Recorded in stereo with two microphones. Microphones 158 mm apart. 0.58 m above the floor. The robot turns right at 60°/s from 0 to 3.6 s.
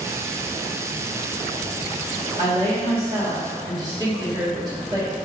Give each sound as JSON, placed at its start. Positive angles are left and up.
{"t": 2.4, "sound": "a woman speaking", "azimuth_deg": -120, "distance_m": 1.3}